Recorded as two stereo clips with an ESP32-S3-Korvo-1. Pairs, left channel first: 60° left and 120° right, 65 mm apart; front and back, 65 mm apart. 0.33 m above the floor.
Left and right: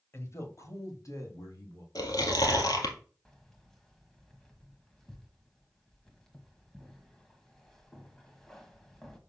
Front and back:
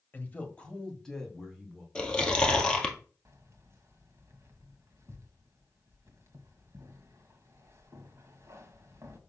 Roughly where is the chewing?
Left.